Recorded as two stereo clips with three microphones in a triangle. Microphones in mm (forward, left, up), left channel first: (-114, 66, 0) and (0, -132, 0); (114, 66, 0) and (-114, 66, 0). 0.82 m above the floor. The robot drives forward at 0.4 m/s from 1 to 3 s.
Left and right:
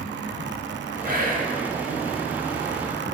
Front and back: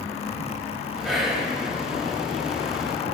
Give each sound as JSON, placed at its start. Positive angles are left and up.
{"t": 1.0, "sound": "whispering", "azimuth_deg": -90, "distance_m": 1.3}